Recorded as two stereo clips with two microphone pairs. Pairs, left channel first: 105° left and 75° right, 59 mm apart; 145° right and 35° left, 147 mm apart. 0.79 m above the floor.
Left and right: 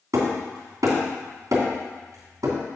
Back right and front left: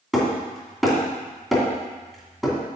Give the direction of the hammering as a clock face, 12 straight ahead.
2 o'clock.